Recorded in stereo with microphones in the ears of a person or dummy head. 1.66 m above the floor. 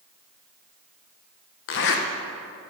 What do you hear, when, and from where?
1.7 s a zipper: 65° left (ahead or behind), 1.1 m